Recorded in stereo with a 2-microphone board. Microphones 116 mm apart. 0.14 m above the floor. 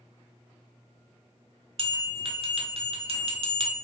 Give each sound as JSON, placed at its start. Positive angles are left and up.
{"t": 1.8, "sound": "a bell", "side_deg": -55, "distance_m": 0.6}